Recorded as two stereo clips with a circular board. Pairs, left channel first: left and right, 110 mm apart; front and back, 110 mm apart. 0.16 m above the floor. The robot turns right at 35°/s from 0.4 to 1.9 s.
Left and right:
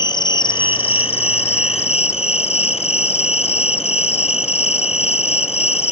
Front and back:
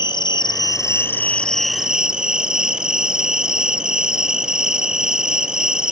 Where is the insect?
45° left, 0.7 m; by 5.9 s 95° left, 0.7 m.